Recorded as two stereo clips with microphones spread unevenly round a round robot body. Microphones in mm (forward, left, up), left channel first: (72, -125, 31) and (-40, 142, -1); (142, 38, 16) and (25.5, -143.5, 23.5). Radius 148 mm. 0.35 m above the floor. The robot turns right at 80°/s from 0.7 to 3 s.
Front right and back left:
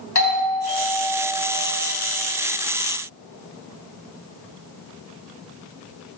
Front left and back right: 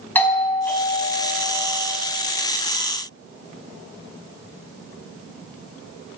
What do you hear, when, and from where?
0.1 s a doorbell: 25° right, 4 m; by 1.9 s 75° left, 4 m